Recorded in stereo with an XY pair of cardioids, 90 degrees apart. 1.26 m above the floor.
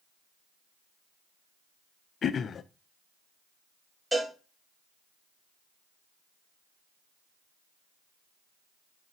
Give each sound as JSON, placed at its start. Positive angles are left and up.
{"t": 2.2, "sound": "throat clearing", "azimuth_deg": 60, "distance_m": 0.5}
{"t": 4.1, "sound": "a cowbell", "azimuth_deg": -10, "distance_m": 2.5}